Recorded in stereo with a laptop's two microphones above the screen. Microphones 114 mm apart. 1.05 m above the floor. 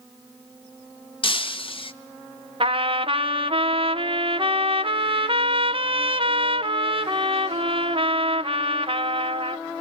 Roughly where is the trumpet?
Right.